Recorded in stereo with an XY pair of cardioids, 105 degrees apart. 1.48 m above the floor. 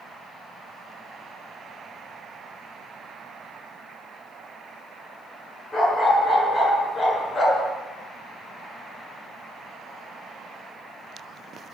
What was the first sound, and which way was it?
A dog barking, 35° left.